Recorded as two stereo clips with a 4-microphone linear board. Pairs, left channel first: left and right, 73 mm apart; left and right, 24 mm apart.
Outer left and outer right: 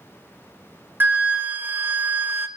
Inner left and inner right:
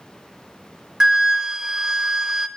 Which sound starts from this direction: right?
A flute, at 1.0 s.